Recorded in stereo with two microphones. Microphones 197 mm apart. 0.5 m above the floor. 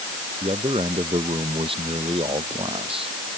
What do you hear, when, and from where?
0.4 s a man speaking: 30° right (ahead or behind)